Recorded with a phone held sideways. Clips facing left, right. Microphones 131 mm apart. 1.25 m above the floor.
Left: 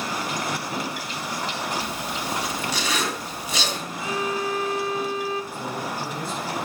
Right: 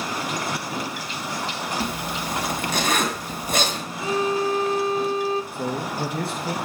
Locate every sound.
1.8 s a zipper: 50° right (ahead or behind), 2.5 m
4.0 s a violin: 30° right (ahead or behind), 0.7 m
5.5 s a man speaking: 65° right (ahead or behind), 2 m